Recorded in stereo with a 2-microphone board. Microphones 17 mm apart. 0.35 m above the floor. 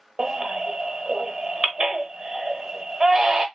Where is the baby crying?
45° right (ahead or behind), 0.8 m.